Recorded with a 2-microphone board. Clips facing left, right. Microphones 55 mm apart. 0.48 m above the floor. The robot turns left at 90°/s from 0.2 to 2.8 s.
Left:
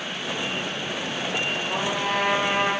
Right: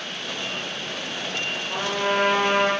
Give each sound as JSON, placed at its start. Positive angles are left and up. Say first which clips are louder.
{"t": 1.7, "sound": "a trumpet", "louder": "right 3 dB", "azimuth_deg": 15, "distance_m": 7.5}